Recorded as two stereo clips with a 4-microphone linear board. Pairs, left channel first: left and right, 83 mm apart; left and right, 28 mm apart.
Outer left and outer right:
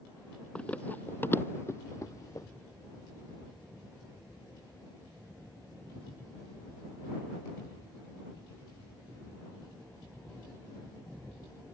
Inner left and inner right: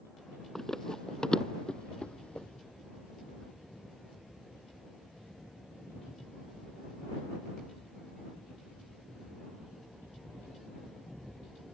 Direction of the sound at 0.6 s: 15° left (ahead or behind).